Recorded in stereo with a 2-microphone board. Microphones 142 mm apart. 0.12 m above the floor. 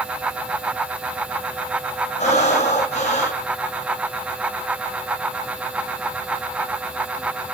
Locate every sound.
2.2 s breathing: 55° left (ahead or behind), 3 m